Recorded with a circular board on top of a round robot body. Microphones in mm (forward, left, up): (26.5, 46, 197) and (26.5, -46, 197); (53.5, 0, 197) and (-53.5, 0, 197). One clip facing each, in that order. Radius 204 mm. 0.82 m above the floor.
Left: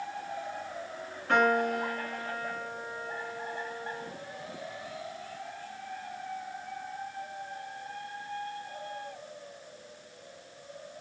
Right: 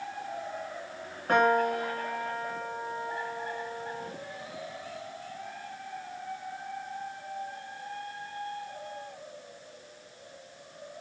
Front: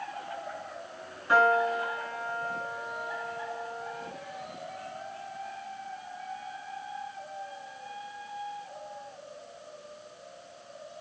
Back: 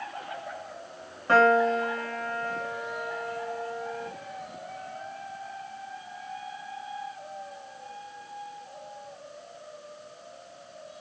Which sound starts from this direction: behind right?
A piano, at 1.3 s.